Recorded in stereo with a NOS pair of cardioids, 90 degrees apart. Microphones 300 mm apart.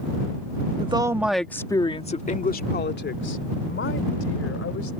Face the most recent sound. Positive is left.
turn(degrees=50)